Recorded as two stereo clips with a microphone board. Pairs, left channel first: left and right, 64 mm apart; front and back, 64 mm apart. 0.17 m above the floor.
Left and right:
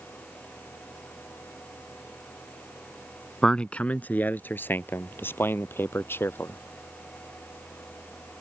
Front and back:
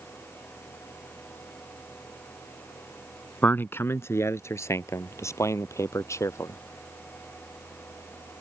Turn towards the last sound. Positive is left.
turn(degrees=40)